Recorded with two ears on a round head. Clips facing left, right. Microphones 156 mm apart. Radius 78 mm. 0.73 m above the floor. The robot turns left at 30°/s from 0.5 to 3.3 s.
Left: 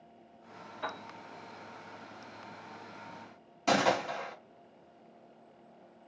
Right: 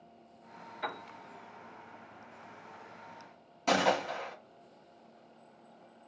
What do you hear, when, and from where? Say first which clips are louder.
0.8 s a piano: right 1 dB; 10° right (ahead or behind), 1.5 m; by 1.0 s 15° right (ahead or behind), 1.5 m
3.7 s a gunshot: even; centre (ahead or behind), 1.1 m